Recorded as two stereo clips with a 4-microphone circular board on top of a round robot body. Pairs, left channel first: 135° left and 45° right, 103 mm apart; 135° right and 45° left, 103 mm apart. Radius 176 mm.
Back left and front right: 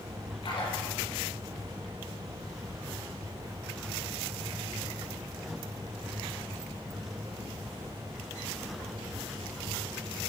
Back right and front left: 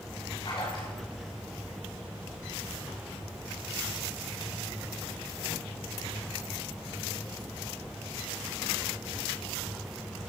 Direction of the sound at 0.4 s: Straight behind.